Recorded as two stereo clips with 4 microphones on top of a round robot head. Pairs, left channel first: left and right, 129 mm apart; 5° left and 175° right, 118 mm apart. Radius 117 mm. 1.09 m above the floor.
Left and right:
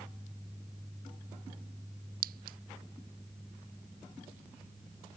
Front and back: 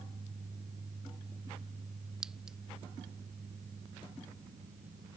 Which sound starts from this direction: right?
A clink, at 2.2 s.